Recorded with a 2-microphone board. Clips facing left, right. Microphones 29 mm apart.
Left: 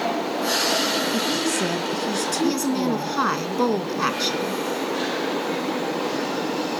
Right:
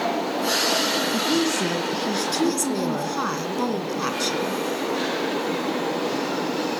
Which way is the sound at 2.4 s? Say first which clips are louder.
Left 1 dB; 20° left (ahead or behind).